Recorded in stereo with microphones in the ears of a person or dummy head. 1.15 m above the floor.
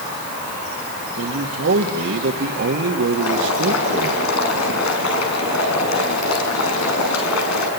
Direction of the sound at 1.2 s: 70° right (ahead or behind).